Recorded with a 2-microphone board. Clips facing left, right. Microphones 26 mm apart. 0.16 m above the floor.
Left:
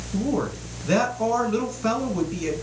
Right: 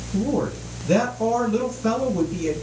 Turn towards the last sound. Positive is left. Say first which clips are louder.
# right 2 dB
turn(degrees=20)  # may be behind; listen again after turning